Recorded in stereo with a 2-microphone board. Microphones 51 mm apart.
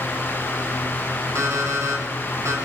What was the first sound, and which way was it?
An alarm clock, 75° right (ahead or behind).